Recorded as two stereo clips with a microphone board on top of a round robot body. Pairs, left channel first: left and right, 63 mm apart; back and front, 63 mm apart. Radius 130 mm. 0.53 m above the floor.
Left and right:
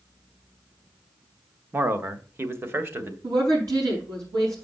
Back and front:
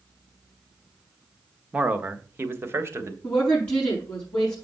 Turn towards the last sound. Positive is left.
turn(degrees=-105)